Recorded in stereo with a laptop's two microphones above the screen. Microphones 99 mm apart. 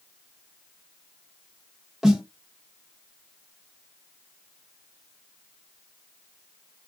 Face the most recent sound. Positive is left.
turn(degrees=0)  # may be behind; listen again after turning